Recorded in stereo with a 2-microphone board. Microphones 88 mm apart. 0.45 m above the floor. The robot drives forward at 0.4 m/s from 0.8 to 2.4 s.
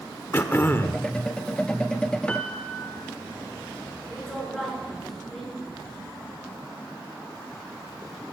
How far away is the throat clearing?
About 1.0 m.